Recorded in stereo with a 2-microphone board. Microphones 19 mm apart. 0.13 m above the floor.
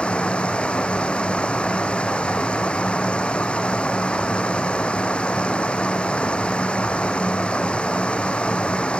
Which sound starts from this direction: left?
Running water, at 0.0 s.